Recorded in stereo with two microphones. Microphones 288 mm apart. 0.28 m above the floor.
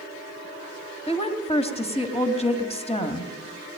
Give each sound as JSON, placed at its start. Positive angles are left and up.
{"t": 1.1, "sound": "a woman speaking", "side_deg": 20, "distance_m": 2.0}